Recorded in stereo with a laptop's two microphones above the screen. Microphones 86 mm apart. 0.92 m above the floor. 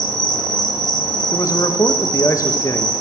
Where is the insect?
50° left (ahead or behind), 0.9 m.